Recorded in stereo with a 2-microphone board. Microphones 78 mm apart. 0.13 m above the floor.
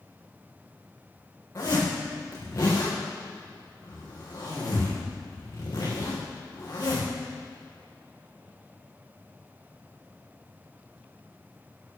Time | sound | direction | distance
1.6 | a zipper | 35° left (ahead or behind) | 5 m